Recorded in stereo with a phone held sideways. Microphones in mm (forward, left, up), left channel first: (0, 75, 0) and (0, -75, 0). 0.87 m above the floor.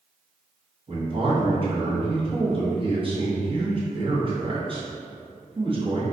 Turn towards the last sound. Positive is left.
turn(degrees=-35)  # may be behind; listen again after turning